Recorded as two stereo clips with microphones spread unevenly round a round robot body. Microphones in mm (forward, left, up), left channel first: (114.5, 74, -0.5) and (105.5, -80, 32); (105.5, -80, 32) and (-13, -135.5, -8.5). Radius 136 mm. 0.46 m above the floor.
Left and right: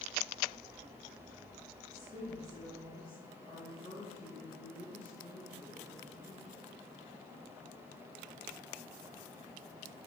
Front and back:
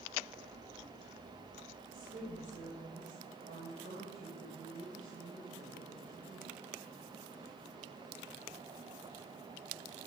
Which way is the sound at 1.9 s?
175° right.